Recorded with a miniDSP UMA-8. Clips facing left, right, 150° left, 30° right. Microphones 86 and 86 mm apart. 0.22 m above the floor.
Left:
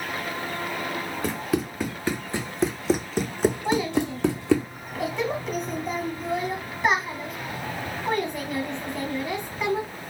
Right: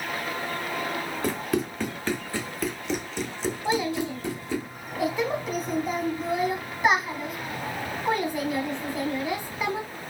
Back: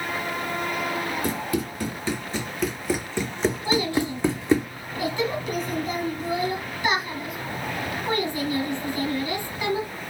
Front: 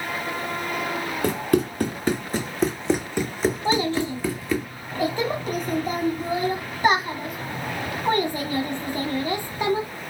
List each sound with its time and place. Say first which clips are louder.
1.2 s running footsteps: even, front 5 dB; straight ahead, 1.7 m; by 4.7 s 95° left, 1.3 m
3.6 s a child speaking: left 2 dB, front 2 dB; 5° right, 0.7 m